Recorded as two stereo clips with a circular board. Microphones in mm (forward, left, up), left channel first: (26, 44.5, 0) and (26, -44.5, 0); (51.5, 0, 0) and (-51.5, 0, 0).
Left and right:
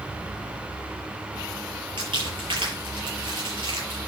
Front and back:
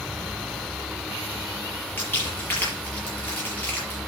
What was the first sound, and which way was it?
Crumpling, 70° right.